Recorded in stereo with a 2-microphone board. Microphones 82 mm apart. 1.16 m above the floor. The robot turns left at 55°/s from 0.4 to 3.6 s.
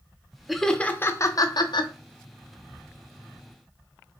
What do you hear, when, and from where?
0.5 s laughter: centre (ahead or behind), 0.5 m; by 1.9 s 75° left (ahead or behind), 0.5 m